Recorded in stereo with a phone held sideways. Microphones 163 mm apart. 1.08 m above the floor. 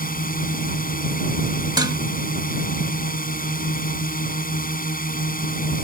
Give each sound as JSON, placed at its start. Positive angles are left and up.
{"t": 0.0, "sound": "a drone", "side_deg": 60}
{"t": 1.8, "sound": "dishes clattering", "side_deg": -25}